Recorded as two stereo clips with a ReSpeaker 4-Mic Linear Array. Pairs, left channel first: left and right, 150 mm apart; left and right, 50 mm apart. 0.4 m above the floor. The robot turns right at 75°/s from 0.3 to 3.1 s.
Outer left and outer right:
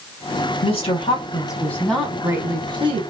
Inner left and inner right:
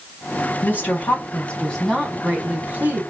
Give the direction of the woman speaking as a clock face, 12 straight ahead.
9 o'clock.